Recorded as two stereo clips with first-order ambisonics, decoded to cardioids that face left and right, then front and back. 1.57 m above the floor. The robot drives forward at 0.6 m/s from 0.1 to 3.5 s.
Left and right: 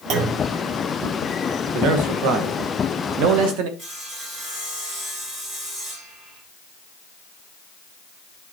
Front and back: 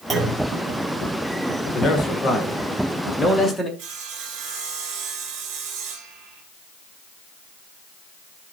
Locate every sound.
0.1 s a clunk: 105° right, 1.8 m; by 0.4 s 110° right, 1.8 m
1.7 s a man speaking: 70° right, 2 m; by 3.7 s 95° right, 2 m
3.8 s sawing: 150° right, 3.5 m